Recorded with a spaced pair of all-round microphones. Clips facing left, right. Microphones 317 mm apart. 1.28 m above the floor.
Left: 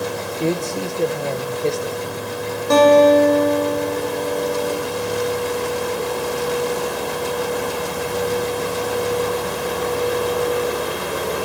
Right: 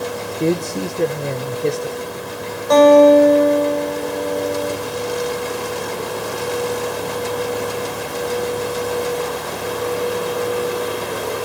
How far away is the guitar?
About 5.5 m.